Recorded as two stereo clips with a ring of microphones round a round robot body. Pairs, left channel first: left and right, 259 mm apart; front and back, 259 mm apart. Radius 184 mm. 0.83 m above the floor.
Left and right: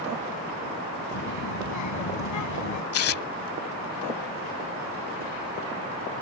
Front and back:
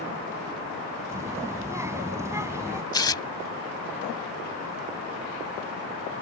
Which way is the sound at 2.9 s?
75° left.